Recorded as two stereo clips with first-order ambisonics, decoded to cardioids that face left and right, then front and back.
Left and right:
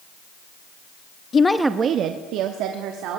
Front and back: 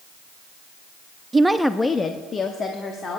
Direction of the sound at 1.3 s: 120° left.